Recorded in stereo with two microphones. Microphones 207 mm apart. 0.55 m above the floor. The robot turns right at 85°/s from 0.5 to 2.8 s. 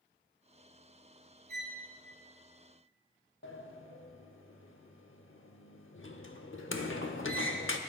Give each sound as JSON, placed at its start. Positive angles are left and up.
{"t": 1.5, "sound": "a violin", "side_deg": -45, "distance_m": 1.6}
{"t": 3.4, "sound": "a sliding door", "side_deg": 75, "distance_m": 0.8}